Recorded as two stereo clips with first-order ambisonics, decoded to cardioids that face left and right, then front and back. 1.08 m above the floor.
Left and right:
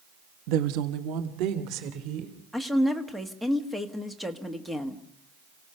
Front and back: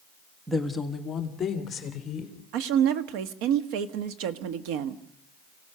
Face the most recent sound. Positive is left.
turn(degrees=180)